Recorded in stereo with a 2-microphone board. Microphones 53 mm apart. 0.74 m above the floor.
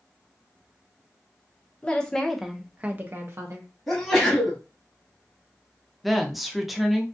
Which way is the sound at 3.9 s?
5° left (ahead or behind).